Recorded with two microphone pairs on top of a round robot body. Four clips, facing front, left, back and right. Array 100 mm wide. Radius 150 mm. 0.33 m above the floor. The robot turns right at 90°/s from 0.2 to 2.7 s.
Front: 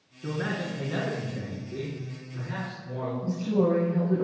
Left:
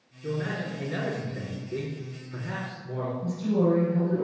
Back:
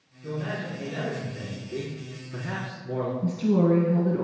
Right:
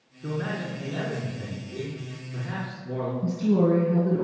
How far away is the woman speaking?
About 4 m.